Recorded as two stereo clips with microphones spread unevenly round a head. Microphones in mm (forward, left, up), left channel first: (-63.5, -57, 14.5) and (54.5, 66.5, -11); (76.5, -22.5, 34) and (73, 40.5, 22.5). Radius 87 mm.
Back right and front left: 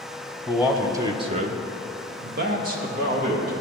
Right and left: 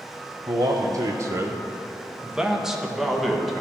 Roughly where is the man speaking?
Behind left.